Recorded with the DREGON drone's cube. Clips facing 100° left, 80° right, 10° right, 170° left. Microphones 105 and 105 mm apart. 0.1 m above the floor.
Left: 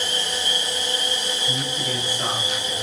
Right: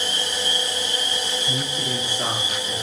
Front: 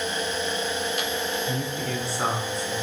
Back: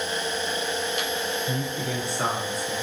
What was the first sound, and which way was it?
A man speaking, 160° right.